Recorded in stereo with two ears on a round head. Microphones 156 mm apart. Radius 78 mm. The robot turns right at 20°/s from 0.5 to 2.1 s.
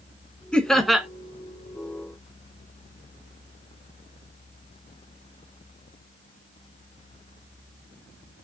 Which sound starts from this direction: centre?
Laughter, at 0.5 s.